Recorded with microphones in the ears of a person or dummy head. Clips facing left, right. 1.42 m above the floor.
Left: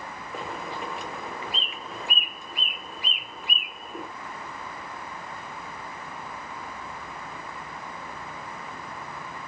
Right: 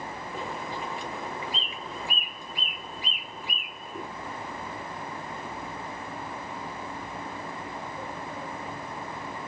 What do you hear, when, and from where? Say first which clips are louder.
0.3 s a bird: left 1 dB; 55° left (ahead or behind), 1.1 m